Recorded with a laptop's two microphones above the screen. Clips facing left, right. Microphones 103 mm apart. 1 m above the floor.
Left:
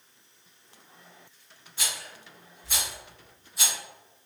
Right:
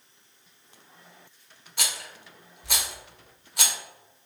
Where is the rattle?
75° right (ahead or behind), 0.7 m.